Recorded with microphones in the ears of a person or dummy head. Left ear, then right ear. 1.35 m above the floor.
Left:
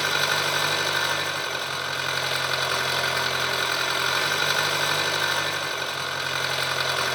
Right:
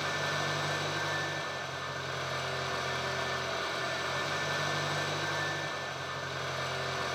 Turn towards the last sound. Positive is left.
turn(degrees=50)  # may be behind; listen again after turning